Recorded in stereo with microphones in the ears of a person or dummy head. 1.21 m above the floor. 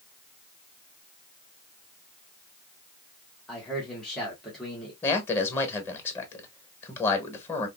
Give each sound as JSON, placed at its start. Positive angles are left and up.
{"t": 3.5, "sound": "a man speaking", "side_deg": 5, "distance_m": 1.4}
{"t": 5.0, "sound": "a man speaking", "side_deg": 15, "distance_m": 1.0}